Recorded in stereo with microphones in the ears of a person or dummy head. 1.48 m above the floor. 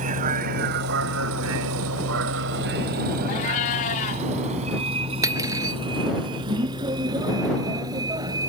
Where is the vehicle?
40° right (ahead or behind); by 8.5 s 15° right (ahead or behind).